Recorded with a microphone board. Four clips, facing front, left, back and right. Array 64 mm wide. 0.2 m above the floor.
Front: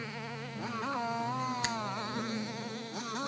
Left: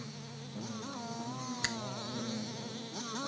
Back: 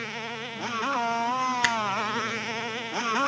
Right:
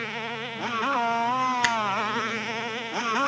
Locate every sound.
0.0 s a motorcycle: 110° right; by 3.3 s 130° right
1.6 s a finger snap: 135° right